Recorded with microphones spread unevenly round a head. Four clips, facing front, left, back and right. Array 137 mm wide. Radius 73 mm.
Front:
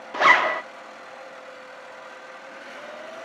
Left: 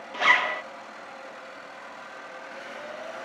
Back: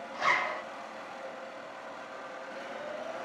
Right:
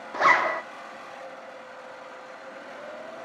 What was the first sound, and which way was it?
A zipper, 25° right.